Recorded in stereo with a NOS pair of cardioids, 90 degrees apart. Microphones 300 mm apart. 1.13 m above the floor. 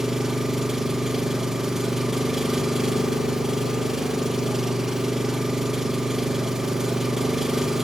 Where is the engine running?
Straight ahead, 0.8 m.